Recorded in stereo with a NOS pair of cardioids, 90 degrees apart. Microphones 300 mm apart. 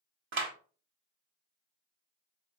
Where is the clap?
40° right, 1.4 m.